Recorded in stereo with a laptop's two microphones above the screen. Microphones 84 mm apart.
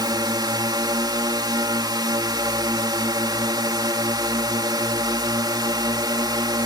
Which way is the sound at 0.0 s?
55° right (ahead or behind).